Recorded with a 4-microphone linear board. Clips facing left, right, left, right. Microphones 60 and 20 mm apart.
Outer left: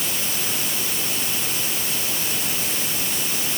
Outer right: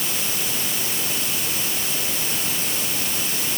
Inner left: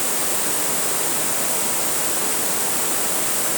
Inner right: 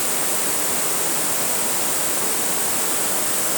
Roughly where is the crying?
I don't hear crying.